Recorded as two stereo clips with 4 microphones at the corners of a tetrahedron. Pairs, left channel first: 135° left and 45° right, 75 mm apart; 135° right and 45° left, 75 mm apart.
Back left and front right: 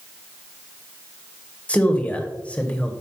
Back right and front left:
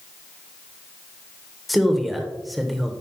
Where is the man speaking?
135° left, 0.9 m.